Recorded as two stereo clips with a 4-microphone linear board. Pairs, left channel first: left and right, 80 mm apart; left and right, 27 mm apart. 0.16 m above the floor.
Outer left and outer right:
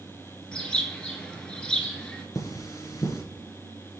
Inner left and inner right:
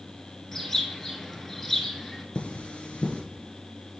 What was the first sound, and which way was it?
A bird, 10° left (ahead or behind).